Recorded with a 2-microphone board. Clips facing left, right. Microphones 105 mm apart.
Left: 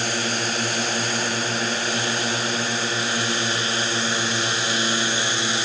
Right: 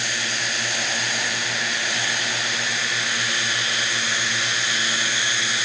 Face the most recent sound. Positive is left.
turn(degrees=30)  # may be behind; listen again after turning